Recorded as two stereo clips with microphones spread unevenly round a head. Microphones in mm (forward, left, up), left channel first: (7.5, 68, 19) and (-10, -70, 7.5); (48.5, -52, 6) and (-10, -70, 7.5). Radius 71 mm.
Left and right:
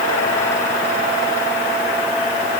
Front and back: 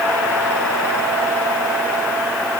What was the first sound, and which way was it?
Only background noise.